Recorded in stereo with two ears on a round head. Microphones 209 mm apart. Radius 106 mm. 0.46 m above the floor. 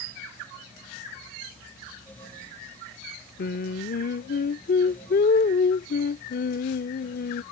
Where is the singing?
40° left (ahead or behind).